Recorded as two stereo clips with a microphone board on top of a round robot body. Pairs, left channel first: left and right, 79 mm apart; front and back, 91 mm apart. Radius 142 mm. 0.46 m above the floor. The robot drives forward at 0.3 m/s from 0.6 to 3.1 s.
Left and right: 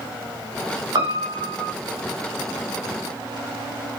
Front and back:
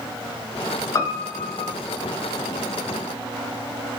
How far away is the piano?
About 0.6 m.